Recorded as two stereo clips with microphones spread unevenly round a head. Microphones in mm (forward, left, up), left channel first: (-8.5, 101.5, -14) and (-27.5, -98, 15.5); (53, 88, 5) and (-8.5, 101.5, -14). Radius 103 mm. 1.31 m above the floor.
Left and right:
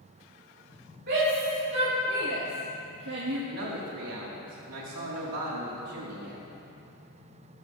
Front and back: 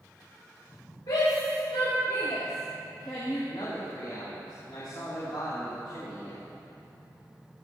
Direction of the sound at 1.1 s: 50° right.